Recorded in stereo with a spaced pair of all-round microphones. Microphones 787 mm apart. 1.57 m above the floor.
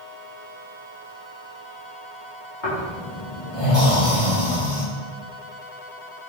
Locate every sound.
2.6 s snoring: 70° left (ahead or behind), 3 m